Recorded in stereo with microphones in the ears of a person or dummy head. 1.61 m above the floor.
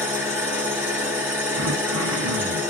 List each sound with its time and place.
0.0 s an engine running: 5° right (ahead or behind), 1.7 m
1.6 s throat clearing: 75° right (ahead or behind), 0.7 m